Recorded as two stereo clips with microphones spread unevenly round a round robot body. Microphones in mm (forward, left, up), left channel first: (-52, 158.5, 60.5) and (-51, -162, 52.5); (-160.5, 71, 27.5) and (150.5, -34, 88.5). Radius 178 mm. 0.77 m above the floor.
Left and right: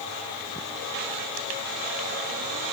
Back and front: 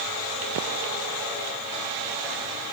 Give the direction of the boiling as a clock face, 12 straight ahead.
No boiling in this recording.